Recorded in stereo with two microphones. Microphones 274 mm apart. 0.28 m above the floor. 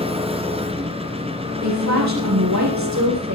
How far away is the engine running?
About 2.5 m.